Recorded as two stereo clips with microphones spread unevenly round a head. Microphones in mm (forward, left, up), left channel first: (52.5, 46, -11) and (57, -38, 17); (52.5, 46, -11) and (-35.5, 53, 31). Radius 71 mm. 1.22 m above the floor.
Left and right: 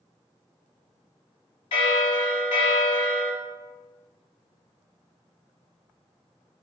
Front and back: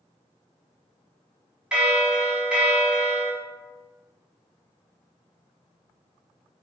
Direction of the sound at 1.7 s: 95° left.